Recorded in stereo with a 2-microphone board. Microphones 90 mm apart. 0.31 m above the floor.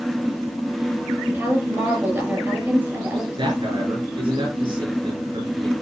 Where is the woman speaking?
25° right (ahead or behind), 7 m.